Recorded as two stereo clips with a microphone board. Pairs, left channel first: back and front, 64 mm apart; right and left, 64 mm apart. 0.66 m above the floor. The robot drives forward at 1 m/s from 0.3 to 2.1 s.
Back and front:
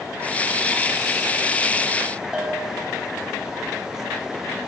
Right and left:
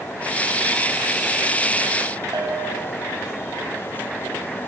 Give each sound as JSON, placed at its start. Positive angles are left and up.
{"t": 2.3, "sound": "a bell", "azimuth_deg": 80, "distance_m": 3.5}